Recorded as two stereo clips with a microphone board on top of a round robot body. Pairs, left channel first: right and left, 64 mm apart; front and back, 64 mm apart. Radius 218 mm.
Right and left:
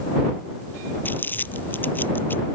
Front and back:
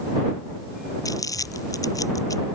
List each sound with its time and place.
1.1 s crumpling: 30° right